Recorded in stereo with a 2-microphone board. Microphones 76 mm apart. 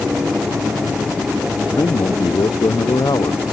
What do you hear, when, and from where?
1.8 s a man speaking: 70° left (ahead or behind)